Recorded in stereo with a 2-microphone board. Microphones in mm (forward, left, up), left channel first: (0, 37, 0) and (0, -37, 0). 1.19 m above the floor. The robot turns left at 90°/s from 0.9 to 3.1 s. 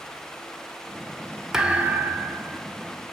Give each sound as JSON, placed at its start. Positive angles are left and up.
{"t": 1.5, "sound": "a thud", "azimuth_deg": -15, "distance_m": 0.5}